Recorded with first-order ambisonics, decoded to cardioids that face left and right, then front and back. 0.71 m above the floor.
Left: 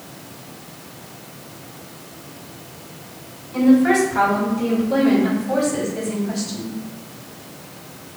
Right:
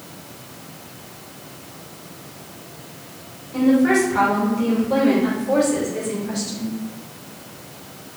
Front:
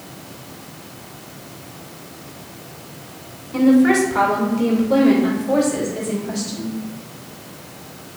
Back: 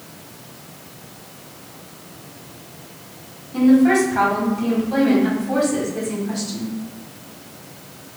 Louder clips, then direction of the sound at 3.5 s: Left 1 dB, even; 5° left.